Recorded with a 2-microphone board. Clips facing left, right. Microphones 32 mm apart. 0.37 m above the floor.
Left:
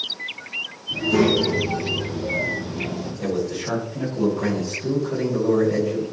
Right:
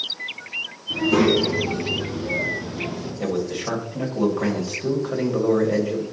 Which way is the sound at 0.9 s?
50° right (ahead or behind).